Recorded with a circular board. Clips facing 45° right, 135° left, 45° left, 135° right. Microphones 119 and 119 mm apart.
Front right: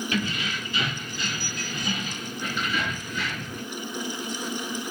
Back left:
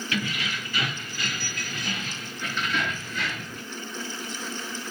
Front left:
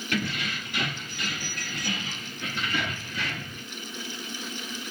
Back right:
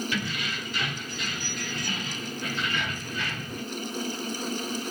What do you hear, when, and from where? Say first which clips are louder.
0.1 s keys jangling: even, front left 2 dB; 15° left, 4.5 m; by 3.6 s 45° left, 3 m